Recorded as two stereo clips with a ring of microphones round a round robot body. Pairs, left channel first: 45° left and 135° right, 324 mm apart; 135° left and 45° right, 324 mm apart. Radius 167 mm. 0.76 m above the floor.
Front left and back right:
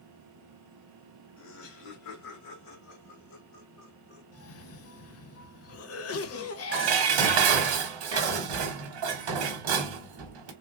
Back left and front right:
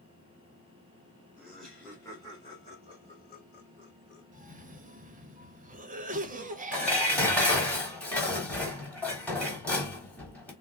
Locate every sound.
1.4 s laughter: 40° left, 1.1 m; by 4.2 s 85° left, 2 m
4.3 s a cough: 15° left, 0.9 m
6.7 s dishes clattering: 140° right, 1.0 m